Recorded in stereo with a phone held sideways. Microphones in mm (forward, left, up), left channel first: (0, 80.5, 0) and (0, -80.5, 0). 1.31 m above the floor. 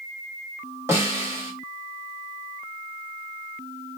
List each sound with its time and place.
0.9 s a snare drum: 15° right (ahead or behind), 1.1 m